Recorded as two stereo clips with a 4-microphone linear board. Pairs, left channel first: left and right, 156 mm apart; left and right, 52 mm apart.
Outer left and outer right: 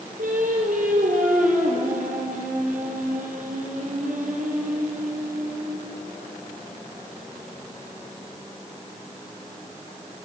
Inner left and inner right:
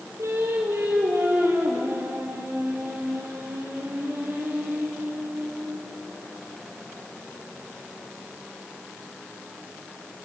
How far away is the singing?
About 4 m.